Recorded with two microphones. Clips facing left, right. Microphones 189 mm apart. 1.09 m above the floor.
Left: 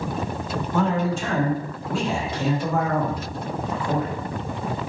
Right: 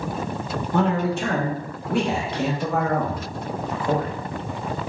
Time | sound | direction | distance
0.7 | a man speaking | 65° right (ahead or behind) | 1.0 m